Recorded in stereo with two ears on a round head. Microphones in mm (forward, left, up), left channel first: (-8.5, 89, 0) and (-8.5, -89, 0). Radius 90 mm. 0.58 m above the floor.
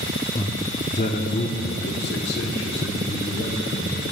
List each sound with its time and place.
0.3 s a man speaking: 20° left (ahead or behind), 0.7 m; by 4.0 s 65° left (ahead or behind), 2.5 m